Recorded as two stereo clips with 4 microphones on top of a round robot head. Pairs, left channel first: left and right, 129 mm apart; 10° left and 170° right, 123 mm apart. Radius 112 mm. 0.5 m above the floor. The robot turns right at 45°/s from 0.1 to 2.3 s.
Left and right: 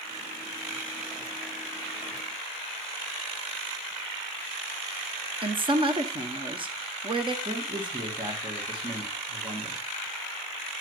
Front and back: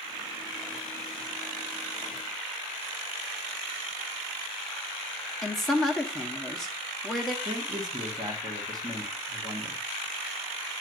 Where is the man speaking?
125° right, 1.3 m.